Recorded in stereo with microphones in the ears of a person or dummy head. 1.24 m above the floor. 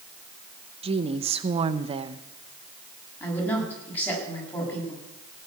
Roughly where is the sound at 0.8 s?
Right.